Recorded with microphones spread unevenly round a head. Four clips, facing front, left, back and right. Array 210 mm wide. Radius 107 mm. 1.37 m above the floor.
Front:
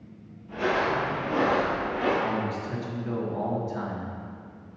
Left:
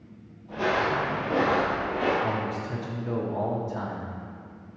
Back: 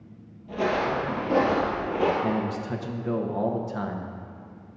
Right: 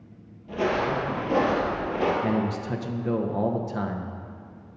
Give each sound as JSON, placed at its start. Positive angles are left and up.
{"t": 0.5, "sound": "footsteps", "azimuth_deg": -95, "distance_m": 2.5}
{"t": 2.2, "sound": "a man speaking", "azimuth_deg": -100, "distance_m": 0.9}